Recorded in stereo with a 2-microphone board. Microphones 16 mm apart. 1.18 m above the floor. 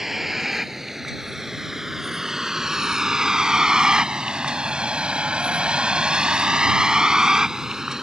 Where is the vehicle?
15° right (ahead or behind); by 8.0 s 35° right (ahead or behind).